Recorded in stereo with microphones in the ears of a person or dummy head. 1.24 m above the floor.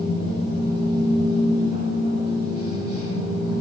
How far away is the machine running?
About 2.5 m.